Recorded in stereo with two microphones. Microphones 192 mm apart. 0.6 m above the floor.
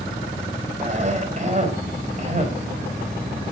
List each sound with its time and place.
0.8 s a cough: 35° right (ahead or behind), 3.5 m